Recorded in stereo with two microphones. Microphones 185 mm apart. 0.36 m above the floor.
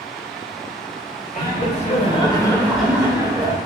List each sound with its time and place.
1.3 s laughter: 50° left (ahead or behind), 1.3 m; by 3.6 s 30° right (ahead or behind), 1.0 m